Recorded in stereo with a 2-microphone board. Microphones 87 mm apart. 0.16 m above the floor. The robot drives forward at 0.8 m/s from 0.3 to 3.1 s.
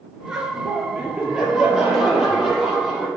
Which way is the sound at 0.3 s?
5° right (ahead or behind).